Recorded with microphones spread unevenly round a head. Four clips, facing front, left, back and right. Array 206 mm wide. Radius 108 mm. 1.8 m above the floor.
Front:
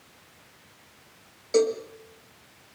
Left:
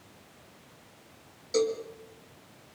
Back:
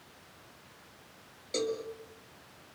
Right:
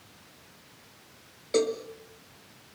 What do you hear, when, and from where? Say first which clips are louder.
1.5 s a cowbell: right 1 dB, front 11 dB; 60° right, 2 m